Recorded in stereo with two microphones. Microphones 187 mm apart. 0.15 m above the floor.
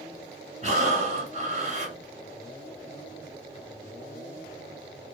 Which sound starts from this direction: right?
Breathing, at 0.6 s.